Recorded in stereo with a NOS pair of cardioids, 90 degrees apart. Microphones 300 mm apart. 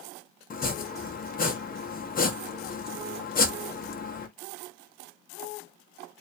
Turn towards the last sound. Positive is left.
turn(degrees=30)